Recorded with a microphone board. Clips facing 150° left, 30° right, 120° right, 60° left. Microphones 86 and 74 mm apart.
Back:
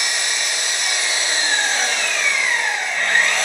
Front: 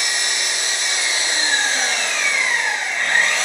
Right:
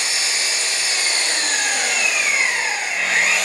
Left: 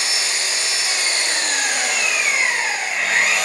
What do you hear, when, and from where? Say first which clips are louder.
0.0 s an engine running: even, even; 140° left, 1.3 m